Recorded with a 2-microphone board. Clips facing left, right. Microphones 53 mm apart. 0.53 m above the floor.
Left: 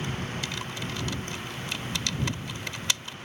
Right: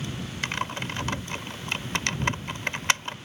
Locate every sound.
0.4 s typing on a keyboard: 45° right (ahead or behind)